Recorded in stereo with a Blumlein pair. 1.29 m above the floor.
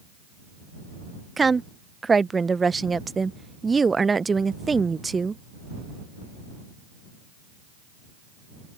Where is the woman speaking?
10° right.